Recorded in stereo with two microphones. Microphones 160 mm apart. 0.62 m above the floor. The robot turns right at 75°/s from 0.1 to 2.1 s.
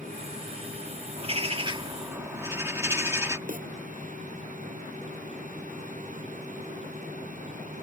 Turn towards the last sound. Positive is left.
turn(degrees=-55)  # may be behind; listen again after turning